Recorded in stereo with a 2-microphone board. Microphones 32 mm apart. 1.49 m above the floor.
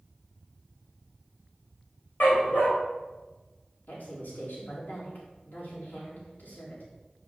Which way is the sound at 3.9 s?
70° left (ahead or behind).